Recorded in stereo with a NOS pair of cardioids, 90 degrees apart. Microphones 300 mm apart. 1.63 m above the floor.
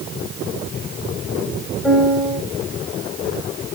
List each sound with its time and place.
1.8 s a piano: straight ahead, 3.5 m